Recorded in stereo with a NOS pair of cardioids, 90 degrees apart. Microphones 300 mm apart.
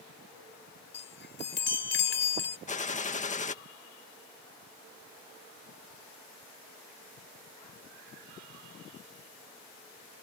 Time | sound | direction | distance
0.9 | a chime | 35° left | ?
2.7 | a gunshot | 25° left | ?